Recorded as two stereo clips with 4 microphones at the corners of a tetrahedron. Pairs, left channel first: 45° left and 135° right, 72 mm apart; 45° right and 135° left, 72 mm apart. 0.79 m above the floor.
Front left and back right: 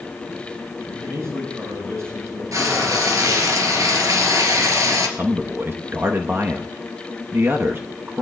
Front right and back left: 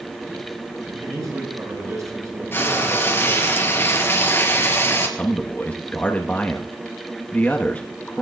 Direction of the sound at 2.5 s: 100° right.